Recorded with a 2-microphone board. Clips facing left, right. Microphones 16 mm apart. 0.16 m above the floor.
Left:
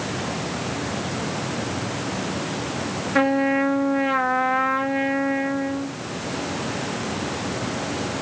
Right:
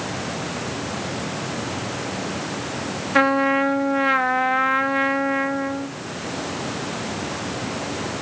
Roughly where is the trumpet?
Right.